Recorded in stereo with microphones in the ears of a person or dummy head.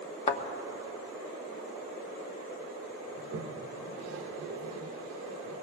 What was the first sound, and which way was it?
A thud, 35° left (ahead or behind).